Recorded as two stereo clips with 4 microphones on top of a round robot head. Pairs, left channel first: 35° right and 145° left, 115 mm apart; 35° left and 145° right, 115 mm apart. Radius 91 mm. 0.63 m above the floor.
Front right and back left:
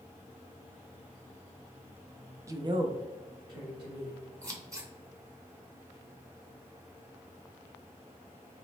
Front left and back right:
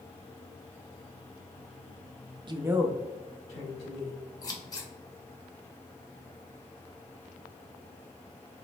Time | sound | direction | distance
2.5 | a woman speaking | 165° right | 0.7 m
4.4 | scissors | 85° left | 1.2 m